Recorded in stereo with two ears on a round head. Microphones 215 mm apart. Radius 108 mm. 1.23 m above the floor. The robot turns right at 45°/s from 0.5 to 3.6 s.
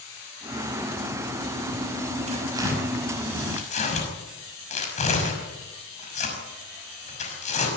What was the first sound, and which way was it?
Tearing paper, 30° right (ahead or behind).